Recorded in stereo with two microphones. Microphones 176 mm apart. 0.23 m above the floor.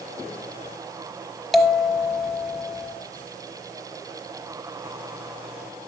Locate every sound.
1.5 s a bell: centre (ahead or behind), 0.9 m